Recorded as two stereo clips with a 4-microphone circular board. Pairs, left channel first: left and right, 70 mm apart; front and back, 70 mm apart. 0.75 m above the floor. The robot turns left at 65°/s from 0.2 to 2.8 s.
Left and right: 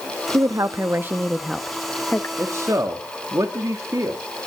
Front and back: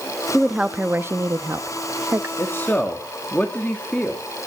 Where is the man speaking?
40° right, 1.8 m; by 4.2 s 70° right, 1.8 m.